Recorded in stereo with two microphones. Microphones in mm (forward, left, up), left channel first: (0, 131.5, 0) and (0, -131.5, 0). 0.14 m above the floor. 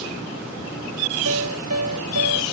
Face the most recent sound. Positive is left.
turn(degrees=-75)  # may be behind; listen again after turning